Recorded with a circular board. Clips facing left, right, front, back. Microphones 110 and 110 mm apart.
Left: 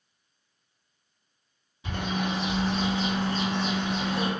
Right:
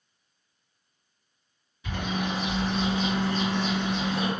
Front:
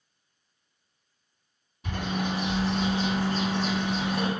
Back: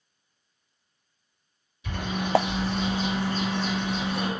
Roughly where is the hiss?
No hiss in this recording.